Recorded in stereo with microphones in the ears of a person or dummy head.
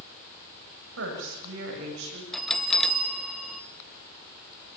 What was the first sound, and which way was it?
A woman speaking, 80° right.